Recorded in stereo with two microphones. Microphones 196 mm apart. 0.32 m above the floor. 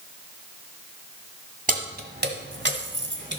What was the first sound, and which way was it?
Keys jangling, 45° right (ahead or behind).